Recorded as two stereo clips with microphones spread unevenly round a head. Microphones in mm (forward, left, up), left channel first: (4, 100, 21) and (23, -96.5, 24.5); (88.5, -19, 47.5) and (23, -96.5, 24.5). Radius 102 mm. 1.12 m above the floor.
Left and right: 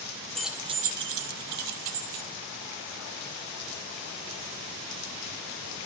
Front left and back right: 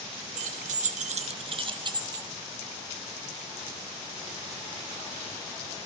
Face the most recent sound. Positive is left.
turn(degrees=-75)